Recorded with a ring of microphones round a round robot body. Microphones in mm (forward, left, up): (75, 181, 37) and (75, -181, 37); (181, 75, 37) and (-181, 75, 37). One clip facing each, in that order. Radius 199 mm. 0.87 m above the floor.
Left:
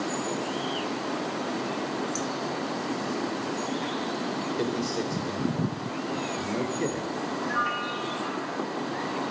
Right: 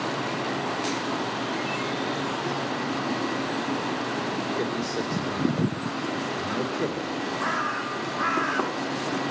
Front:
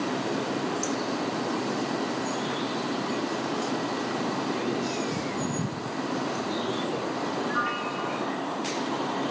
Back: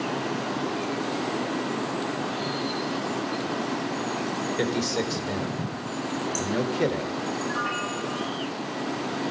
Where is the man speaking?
175° left, 4 m.